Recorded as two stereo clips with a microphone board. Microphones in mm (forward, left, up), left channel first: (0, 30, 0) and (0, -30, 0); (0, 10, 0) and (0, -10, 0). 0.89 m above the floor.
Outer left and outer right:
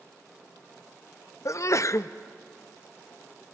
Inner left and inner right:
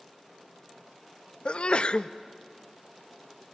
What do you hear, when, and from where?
1.4 s a sneeze: 55° left (ahead or behind), 0.6 m